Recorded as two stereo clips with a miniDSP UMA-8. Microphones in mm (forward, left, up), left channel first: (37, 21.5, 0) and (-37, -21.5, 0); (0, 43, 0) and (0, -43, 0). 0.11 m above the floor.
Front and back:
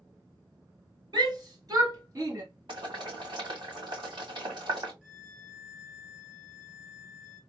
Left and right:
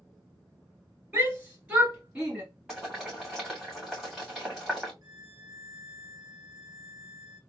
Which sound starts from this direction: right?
A violin, at 5.0 s.